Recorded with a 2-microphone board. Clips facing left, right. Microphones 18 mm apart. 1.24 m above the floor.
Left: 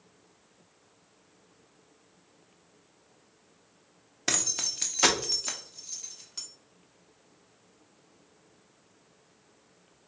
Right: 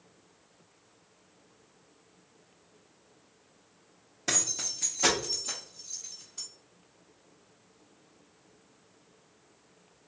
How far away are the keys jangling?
About 0.8 m.